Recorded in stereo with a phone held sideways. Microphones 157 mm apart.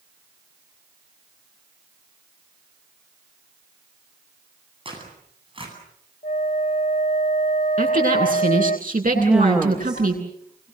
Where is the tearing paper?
35° right (ahead or behind), 9 m.